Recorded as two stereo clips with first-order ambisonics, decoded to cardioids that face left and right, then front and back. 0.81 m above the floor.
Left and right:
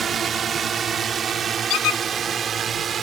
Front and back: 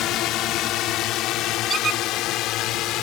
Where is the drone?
25° right; by 3.0 s 30° right.